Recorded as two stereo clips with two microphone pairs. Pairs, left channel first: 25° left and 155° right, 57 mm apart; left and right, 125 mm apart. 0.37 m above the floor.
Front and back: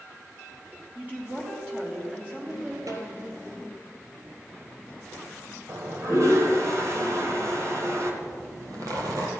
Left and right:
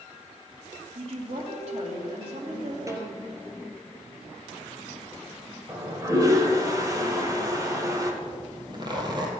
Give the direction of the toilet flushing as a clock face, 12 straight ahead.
5 o'clock.